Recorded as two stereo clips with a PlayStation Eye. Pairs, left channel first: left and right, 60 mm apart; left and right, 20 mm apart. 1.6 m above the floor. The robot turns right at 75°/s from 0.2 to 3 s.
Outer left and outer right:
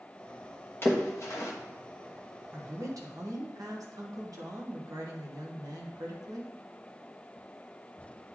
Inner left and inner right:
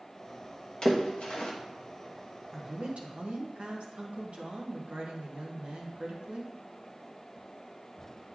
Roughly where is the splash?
Left.